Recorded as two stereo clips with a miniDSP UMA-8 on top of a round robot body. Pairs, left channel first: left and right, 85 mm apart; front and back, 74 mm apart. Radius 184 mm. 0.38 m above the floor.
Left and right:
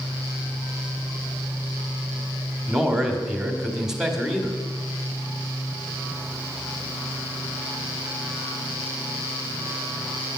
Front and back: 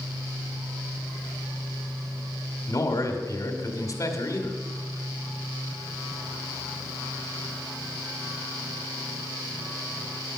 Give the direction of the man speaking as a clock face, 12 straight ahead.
12 o'clock.